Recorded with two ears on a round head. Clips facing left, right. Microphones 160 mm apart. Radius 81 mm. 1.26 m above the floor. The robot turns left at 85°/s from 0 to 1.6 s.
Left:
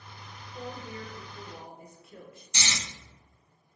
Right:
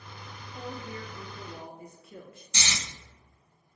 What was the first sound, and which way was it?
A woman speaking, 10° right.